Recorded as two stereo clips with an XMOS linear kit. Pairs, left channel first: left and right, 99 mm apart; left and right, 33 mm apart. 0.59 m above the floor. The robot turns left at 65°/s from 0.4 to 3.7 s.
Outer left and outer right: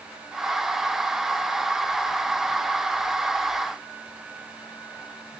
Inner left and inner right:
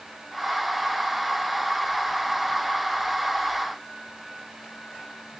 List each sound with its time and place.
Only background noise.